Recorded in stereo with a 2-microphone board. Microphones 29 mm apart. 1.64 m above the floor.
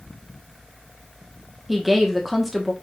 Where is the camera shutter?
I don't hear a camera shutter.